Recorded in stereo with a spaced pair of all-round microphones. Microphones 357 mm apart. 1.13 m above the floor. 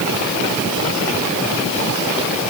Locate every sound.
Only background noise.